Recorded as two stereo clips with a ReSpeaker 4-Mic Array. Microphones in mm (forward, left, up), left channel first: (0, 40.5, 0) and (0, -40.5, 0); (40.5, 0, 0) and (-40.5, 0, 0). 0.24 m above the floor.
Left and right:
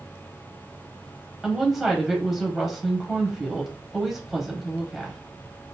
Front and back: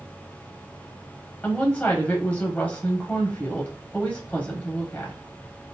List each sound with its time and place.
1.4 s a woman speaking: 5° right, 0.9 m